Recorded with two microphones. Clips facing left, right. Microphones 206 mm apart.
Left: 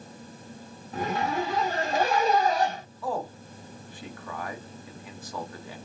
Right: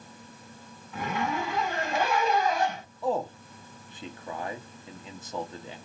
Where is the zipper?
40° left (ahead or behind), 1.1 m.